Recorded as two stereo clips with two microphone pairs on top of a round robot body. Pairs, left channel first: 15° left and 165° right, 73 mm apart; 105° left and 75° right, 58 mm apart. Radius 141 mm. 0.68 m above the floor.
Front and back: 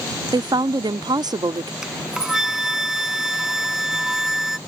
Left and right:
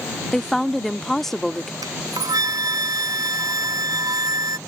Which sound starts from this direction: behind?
A woman speaking, at 0.3 s.